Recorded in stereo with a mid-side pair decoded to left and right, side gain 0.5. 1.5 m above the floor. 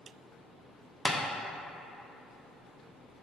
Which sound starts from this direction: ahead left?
Tapping, at 1.1 s.